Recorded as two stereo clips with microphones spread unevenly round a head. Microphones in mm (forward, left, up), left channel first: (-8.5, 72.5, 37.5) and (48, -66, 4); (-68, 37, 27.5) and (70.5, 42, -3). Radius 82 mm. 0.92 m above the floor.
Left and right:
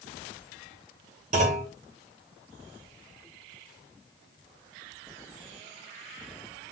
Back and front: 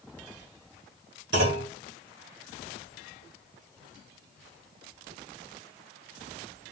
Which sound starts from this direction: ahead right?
A clunk, at 1.3 s.